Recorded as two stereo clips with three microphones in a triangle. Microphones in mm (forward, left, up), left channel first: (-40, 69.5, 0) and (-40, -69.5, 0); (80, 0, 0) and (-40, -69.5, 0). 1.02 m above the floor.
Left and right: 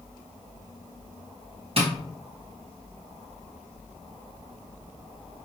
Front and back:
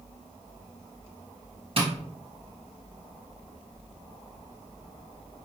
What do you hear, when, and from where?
1.8 s tapping: 120° right, 1.2 m